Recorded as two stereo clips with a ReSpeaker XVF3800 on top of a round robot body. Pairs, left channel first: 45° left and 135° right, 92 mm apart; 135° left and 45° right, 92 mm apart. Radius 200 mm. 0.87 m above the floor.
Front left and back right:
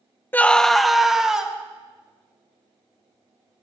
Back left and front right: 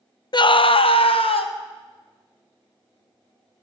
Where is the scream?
110° left, 0.6 m; by 1.5 s 140° left, 2 m.